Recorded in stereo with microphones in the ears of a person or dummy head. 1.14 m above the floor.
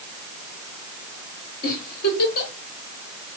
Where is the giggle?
60° left (ahead or behind), 2.5 m.